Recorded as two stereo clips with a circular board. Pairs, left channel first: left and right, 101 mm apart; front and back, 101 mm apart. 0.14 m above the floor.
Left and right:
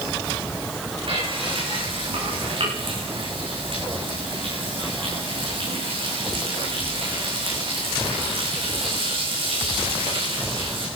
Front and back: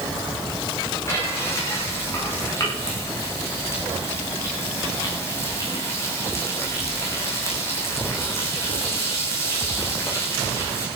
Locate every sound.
1.1 s frying: 60° right, 9.5 m